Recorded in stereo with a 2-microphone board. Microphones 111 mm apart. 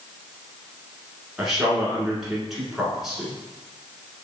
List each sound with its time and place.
1.4 s a man speaking: 5° right (ahead or behind), 1.1 m